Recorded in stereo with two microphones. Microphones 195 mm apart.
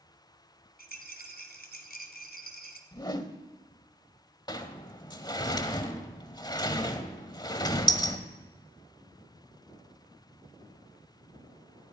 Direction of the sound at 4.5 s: 25° left (ahead or behind).